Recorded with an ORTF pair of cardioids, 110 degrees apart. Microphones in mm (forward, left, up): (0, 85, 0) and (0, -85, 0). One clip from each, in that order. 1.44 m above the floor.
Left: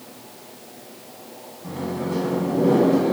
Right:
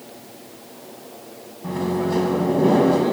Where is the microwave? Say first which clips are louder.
Right 5 dB; 45° right, 1.7 m.